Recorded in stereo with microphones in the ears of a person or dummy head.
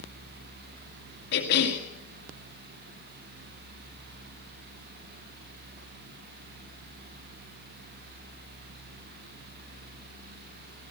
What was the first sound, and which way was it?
A cough, 65° left (ahead or behind).